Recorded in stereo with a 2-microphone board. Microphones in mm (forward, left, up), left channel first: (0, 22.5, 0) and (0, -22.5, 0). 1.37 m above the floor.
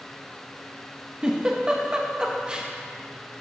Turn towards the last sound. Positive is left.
turn(degrees=-20)  # may be behind; listen again after turning